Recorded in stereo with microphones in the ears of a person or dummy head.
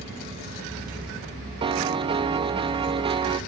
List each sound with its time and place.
1.6 s a piano: 25° right (ahead or behind), 0.8 m